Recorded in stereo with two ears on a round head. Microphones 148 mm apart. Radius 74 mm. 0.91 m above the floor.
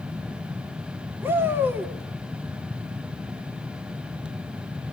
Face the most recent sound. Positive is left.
turn(degrees=-10)  # may be behind; listen again after turning